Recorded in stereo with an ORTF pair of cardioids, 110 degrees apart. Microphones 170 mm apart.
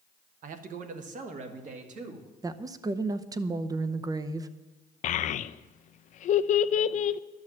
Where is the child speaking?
55° left, 0.5 m.